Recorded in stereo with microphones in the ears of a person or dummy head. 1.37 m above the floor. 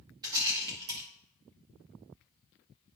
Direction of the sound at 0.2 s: 25° right (ahead or behind).